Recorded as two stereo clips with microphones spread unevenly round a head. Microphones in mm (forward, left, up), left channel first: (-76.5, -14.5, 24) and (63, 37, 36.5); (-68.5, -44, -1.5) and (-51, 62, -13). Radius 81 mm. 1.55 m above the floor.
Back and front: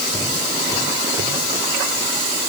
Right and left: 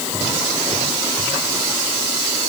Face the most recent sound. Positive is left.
No sound to turn to.